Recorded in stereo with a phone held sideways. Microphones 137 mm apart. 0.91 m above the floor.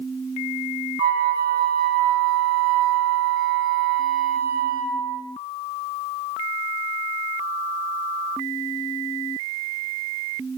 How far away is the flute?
About 1.1 m.